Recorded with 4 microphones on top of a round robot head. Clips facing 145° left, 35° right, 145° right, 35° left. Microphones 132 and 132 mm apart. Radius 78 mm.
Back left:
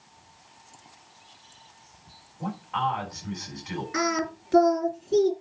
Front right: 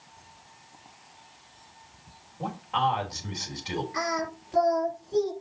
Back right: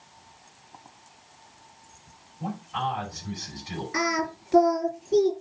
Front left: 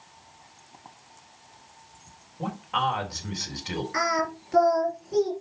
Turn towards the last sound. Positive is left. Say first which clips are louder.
# back left 8 dB, back right 1 dB
turn(degrees=150)